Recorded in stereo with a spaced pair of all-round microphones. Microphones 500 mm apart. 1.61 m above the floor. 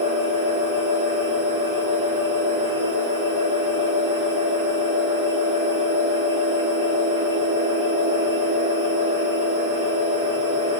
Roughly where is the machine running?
Right.